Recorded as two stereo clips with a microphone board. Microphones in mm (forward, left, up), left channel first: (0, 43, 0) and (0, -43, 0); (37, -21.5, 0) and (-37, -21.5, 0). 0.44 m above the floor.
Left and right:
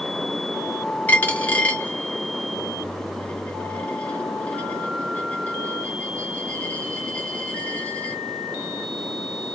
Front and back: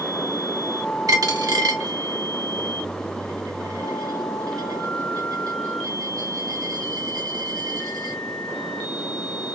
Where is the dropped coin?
160° left, 0.7 m.